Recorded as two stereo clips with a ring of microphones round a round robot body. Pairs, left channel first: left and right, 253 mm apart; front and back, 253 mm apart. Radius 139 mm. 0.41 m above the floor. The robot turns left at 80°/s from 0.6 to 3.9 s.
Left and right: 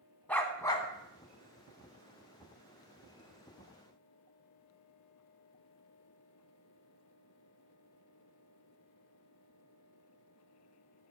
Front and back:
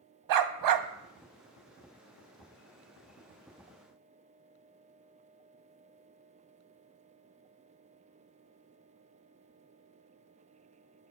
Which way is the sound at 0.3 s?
175° left.